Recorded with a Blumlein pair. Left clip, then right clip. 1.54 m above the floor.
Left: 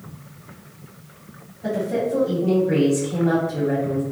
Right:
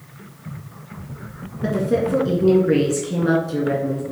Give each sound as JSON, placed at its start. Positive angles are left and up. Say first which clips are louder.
{"t": 1.6, "sound": "a woman speaking", "louder": "right 3 dB", "azimuth_deg": -45, "distance_m": 1.6}